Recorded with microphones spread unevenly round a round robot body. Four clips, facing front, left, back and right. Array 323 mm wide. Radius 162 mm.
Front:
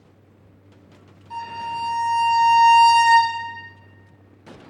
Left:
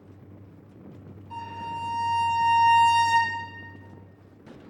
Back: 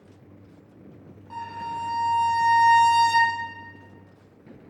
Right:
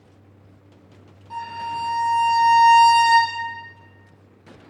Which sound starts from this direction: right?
A violin, at 1.3 s.